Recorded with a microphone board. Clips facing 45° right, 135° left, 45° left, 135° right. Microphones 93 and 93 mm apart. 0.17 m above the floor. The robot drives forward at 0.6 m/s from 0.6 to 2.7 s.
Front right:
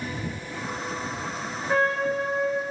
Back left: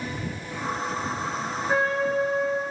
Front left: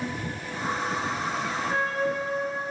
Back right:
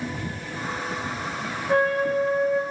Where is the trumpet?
150° right, 8.5 m.